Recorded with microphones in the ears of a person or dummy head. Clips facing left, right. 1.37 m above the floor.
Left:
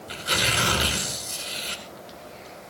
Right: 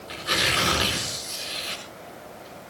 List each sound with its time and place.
0.1 s tearing paper: centre (ahead or behind), 5.5 m